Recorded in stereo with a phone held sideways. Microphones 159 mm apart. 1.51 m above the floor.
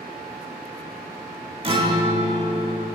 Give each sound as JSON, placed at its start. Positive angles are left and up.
{"t": 1.6, "sound": "a guitar", "side_deg": -35, "distance_m": 1.4}